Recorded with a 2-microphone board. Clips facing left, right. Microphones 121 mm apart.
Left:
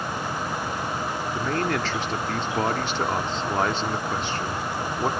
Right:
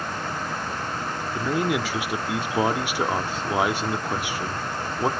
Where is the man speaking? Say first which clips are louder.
Right 2 dB; 10° right (ahead or behind), 0.8 m.